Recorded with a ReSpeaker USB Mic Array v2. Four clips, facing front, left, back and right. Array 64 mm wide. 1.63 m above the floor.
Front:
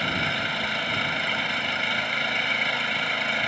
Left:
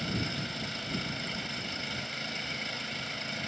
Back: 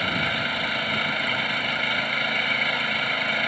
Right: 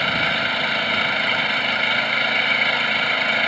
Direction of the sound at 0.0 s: 95° right.